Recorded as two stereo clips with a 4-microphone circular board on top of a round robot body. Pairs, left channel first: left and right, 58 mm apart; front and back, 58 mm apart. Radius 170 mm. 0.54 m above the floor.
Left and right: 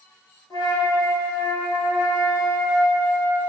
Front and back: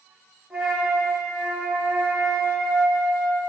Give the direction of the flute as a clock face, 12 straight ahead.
9 o'clock.